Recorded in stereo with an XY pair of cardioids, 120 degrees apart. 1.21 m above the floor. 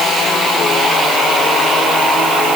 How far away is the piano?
No piano in this recording.